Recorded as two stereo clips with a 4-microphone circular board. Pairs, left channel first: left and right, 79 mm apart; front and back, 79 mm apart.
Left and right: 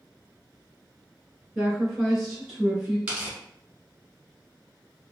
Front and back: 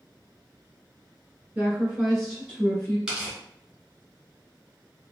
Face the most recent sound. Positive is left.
turn(degrees=-120)